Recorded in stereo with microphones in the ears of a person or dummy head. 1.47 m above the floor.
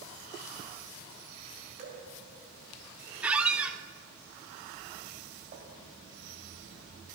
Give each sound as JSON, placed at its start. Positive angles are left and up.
{"t": 1.8, "sound": "dripping", "side_deg": -55, "distance_m": 3.5}
{"t": 3.2, "sound": "a squeak", "side_deg": -15, "distance_m": 0.7}
{"t": 5.5, "sound": "tapping", "side_deg": -50, "distance_m": 2.5}